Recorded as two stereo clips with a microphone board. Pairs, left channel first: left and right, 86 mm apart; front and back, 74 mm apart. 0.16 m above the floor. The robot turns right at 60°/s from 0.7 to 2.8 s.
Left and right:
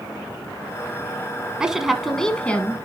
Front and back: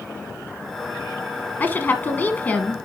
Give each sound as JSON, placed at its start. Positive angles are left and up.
{"t": 1.6, "sound": "a woman speaking", "azimuth_deg": -20, "distance_m": 1.1}